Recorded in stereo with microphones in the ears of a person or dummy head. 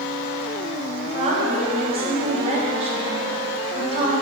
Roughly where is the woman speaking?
Right.